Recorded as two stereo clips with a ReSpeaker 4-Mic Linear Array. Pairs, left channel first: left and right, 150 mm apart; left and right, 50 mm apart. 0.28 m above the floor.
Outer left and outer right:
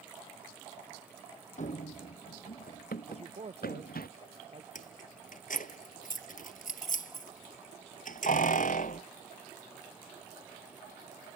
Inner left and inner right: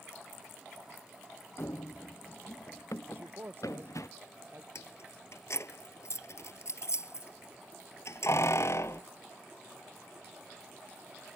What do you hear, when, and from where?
1.6 s running footsteps: 55° left (ahead or behind); by 4.1 s 85° left
3.1 s a man speaking: 45° right (ahead or behind)
4.8 s keys jangling: 60° left (ahead or behind)